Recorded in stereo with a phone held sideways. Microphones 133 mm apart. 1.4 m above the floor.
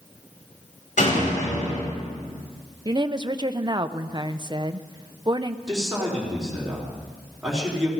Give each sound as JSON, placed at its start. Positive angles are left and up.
{"t": 1.0, "sound": "a door slam", "side_deg": 70, "distance_m": 7.0}
{"t": 2.9, "sound": "a woman speaking", "side_deg": -35, "distance_m": 0.5}
{"t": 5.7, "sound": "a man speaking", "side_deg": -5, "distance_m": 4.0}